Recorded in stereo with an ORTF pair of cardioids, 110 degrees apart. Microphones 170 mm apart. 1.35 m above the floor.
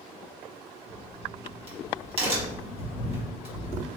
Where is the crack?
35° right, 1.6 m.